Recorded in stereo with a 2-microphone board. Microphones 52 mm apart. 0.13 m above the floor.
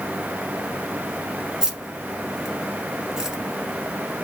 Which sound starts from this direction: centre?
Keys jangling, at 1.6 s.